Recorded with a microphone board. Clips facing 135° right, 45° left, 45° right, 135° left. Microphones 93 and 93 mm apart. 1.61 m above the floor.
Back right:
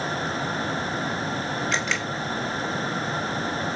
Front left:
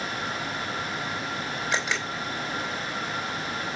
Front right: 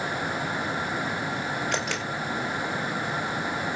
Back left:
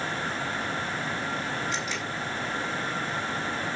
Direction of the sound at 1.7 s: 35° right.